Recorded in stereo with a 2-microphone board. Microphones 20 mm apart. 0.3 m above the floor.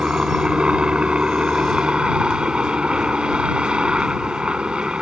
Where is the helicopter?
55° right (ahead or behind).